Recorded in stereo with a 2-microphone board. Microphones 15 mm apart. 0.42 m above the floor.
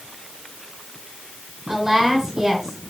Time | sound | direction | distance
1.7 | a woman speaking | 30° right (ahead or behind) | 6.5 m